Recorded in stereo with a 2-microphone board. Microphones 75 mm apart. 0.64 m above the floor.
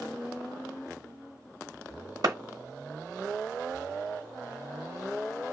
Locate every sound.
2.2 s a clap: 65° right (ahead or behind), 1.1 m